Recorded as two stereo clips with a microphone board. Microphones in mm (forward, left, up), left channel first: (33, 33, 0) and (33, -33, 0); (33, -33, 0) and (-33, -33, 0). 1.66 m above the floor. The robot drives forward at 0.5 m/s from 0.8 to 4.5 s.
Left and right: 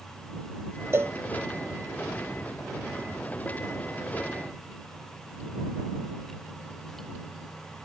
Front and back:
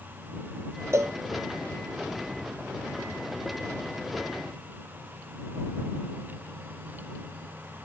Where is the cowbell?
135° right; by 1.1 s 140° right.